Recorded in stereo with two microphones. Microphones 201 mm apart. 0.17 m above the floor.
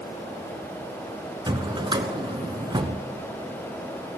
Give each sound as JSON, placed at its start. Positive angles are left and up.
{"t": 1.5, "sound": "a drawer", "side_deg": -25, "distance_m": 0.9}